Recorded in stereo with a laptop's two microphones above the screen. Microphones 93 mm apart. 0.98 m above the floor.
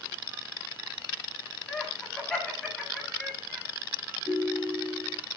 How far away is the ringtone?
About 7 m.